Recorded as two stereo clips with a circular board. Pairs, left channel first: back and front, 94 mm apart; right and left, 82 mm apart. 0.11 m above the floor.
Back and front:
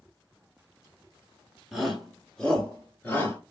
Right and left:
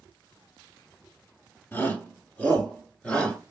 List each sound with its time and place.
1.7 s a shout: 80° right, 1.8 m; by 3.4 s 150° right, 1.9 m